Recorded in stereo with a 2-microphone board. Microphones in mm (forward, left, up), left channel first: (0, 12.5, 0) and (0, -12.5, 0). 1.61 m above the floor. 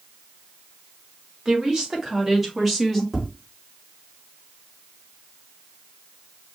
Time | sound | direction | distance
1.4 | a woman speaking | 25° right (ahead or behind) | 2 m
3.1 | tapping | 15° right (ahead or behind) | 3 m